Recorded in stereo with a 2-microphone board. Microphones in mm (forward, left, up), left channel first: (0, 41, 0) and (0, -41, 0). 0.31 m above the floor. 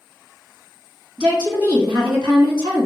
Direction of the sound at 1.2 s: 60° right (ahead or behind).